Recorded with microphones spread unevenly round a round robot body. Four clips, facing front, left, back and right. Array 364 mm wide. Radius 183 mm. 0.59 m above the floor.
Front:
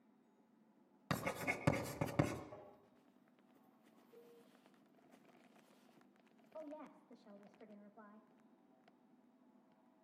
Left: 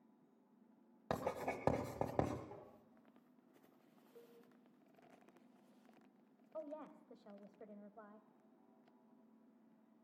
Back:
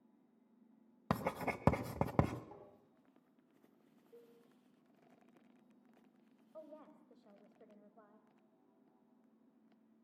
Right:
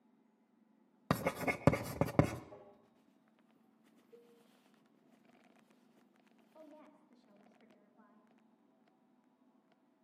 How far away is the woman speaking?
About 3 m.